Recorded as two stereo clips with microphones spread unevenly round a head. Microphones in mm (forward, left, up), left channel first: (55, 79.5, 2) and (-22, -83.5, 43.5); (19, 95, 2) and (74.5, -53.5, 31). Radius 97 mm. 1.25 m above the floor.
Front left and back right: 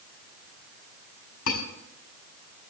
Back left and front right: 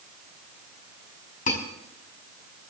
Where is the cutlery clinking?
70° left, 6 m.